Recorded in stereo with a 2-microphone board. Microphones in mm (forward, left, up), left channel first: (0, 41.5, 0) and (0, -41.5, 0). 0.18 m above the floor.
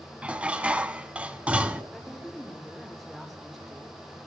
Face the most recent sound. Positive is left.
turn(degrees=0)  # may be behind; listen again after turning